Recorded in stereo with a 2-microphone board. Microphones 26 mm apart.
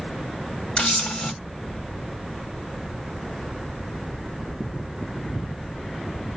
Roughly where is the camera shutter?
Left.